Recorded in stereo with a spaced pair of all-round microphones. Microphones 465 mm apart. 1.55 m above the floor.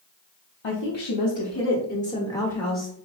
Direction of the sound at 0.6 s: 75° left (ahead or behind).